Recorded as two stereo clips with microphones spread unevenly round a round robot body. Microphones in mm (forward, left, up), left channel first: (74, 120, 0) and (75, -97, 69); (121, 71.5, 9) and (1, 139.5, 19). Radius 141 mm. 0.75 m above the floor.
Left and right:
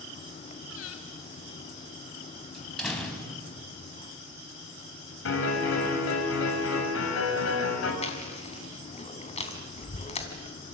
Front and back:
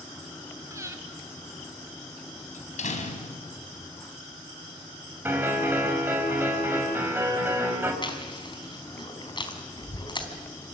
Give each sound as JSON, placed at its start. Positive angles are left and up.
{"t": 0.7, "sound": "breathing", "azimuth_deg": 80, "distance_m": 3.0}
{"t": 2.5, "sound": "a door slam", "azimuth_deg": 0, "distance_m": 4.0}
{"t": 5.2, "sound": "a piano", "azimuth_deg": 75, "distance_m": 5.5}
{"t": 8.0, "sound": "chewing", "azimuth_deg": 30, "distance_m": 3.5}